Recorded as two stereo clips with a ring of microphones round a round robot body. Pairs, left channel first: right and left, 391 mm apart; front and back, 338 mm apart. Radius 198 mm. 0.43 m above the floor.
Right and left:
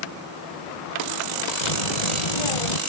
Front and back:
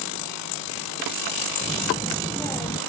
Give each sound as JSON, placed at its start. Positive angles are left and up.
{"t": 1.6, "sound": "a child speaking", "azimuth_deg": -85}